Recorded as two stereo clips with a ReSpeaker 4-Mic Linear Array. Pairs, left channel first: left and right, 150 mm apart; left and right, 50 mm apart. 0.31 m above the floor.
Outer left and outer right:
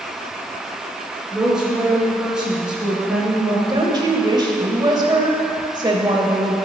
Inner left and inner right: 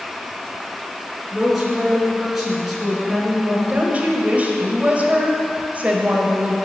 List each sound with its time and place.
1.3 s a woman speaking: 5° right (ahead or behind), 3 m
3.7 s a woman speaking: 30° right (ahead or behind), 1.5 m